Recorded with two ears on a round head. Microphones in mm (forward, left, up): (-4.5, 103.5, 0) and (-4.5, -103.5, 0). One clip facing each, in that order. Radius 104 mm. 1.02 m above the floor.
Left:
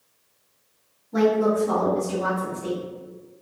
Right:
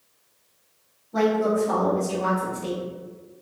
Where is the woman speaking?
60° left (ahead or behind), 1.3 m; by 2.8 s 35° right (ahead or behind), 0.7 m.